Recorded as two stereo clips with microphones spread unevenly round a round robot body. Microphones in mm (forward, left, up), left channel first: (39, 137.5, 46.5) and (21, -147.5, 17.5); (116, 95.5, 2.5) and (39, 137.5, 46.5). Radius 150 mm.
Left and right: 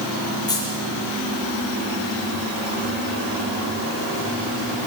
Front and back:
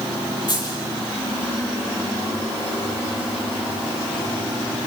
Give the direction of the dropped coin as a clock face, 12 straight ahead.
12 o'clock.